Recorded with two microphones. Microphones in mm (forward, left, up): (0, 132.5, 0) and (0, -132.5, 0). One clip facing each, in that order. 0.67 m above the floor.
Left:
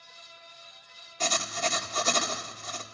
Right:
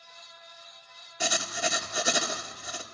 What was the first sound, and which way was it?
Writing, 10° right (ahead or behind).